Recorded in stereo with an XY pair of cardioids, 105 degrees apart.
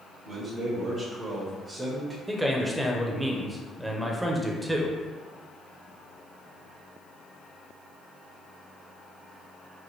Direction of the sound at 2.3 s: 15° right.